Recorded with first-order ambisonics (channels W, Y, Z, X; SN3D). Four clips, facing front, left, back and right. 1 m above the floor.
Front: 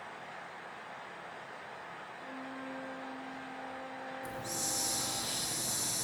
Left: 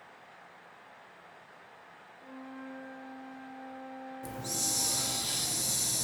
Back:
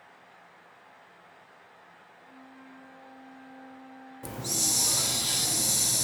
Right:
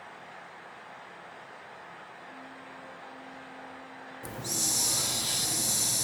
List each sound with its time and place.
2.2 s a flute: 30° left, 1.6 m
4.2 s a hiss: 155° right, 0.7 m